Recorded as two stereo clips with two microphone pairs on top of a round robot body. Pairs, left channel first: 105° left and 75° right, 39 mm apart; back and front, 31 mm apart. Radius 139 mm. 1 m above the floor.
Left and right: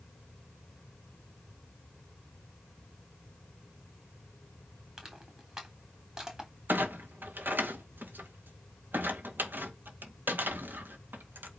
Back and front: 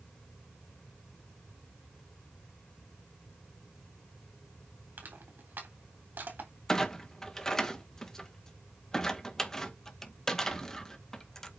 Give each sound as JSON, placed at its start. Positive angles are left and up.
{"t": 5.0, "sound": "crushing", "azimuth_deg": 5, "distance_m": 3.5}
{"t": 6.7, "sound": "a clunk", "azimuth_deg": -110, "distance_m": 2.0}